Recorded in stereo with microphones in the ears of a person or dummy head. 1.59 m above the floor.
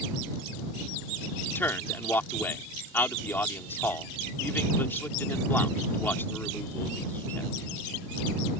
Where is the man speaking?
10° left (ahead or behind).